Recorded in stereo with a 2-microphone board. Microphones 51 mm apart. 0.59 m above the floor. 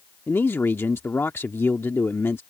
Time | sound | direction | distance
0.3 | a man speaking | 50° left (ahead or behind) | ?